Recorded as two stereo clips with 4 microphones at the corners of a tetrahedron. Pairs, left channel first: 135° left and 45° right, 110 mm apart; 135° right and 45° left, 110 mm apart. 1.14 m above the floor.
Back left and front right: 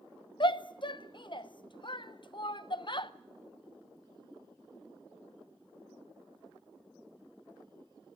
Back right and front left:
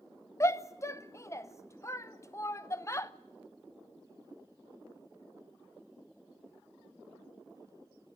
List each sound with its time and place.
0.4 s a shout: 165° left, 0.7 m